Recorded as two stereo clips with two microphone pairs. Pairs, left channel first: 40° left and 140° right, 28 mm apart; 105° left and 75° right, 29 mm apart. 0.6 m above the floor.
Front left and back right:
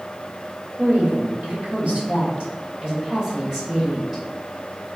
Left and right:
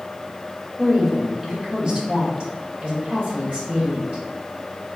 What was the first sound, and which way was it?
A woman speaking, 155° right.